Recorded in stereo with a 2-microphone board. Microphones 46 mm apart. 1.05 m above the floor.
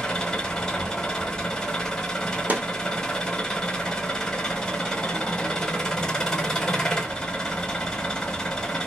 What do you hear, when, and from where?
0.0 s an engine running: 10° left (ahead or behind), 1.2 m
2.5 s a snare drum: 40° right (ahead or behind), 1.2 m